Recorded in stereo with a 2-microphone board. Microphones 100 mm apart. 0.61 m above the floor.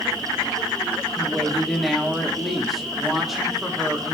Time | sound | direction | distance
1.2 | a woman speaking | centre (ahead or behind) | 1.4 m